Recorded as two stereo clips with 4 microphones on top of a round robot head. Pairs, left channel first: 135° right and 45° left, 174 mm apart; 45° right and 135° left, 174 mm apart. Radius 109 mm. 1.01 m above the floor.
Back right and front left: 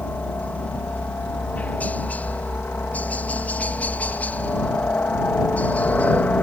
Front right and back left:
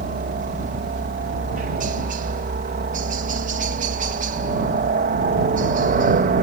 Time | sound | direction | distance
0.0 | a helicopter | 145° left | ?